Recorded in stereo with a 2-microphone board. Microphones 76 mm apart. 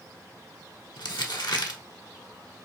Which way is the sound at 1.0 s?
70° left (ahead or behind).